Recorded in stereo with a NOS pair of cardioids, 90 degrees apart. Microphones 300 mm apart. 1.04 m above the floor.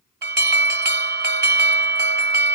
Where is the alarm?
35° right, 1.1 m.